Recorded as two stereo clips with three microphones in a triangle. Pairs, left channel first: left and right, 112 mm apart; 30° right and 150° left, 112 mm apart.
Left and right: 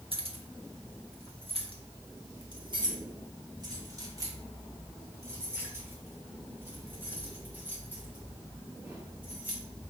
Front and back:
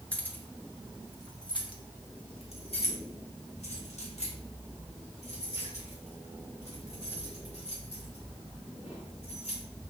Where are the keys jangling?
105° right, 1.4 m; by 9.6 s 15° right, 5 m.